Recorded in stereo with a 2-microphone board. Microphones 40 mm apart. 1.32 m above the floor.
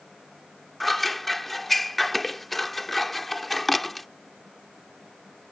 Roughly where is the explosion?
No explosion in this recording.